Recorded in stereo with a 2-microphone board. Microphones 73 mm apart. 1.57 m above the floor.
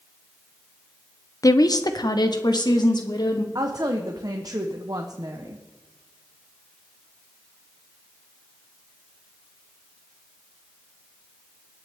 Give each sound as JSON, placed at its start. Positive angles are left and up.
{"t": 1.4, "sound": "a woman speaking", "side_deg": 50, "distance_m": 0.7}
{"t": 3.5, "sound": "a woman speaking", "side_deg": -60, "distance_m": 1.0}